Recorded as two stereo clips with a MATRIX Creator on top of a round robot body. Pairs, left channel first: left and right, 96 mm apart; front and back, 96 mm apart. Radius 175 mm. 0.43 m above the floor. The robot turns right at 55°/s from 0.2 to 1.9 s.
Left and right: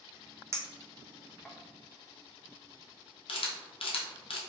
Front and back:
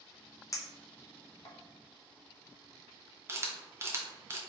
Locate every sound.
0.5 s a clink: 40° right, 0.9 m; by 1.6 s 15° left, 0.9 m
3.3 s a camera shutter: 115° left, 0.6 m